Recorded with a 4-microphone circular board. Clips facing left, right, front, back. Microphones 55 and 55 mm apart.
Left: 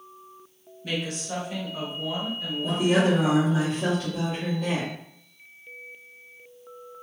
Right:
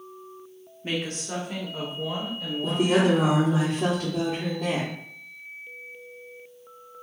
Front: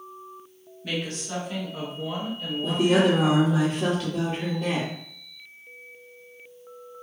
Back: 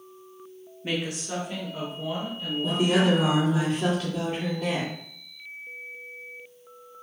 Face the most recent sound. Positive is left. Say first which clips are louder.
# right 1 dB, front 2 dB
turn(degrees=-65)